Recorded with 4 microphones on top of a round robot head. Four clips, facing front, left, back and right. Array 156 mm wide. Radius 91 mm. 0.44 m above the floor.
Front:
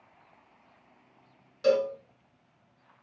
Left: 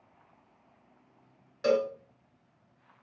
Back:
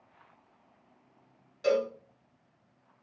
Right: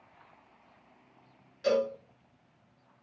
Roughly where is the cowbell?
Left.